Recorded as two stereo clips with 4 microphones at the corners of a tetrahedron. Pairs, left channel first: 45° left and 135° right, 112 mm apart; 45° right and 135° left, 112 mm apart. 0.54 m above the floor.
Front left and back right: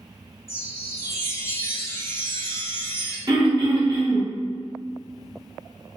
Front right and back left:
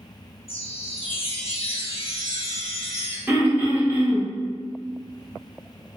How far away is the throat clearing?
About 1.1 m.